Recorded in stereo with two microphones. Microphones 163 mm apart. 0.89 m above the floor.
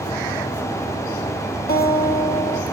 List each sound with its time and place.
1.7 s a guitar: 65° left (ahead or behind), 2.0 m